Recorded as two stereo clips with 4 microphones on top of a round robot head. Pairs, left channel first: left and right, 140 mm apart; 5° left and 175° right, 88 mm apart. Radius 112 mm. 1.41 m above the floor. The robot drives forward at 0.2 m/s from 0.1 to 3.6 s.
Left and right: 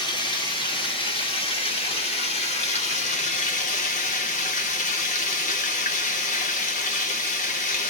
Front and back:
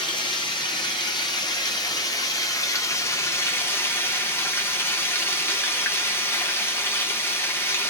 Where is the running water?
35° left, 1.3 m; by 7.9 s 65° left, 0.8 m.